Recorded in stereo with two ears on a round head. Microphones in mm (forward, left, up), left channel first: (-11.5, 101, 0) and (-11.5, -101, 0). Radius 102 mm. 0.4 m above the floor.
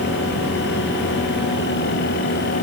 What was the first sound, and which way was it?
Only background noise.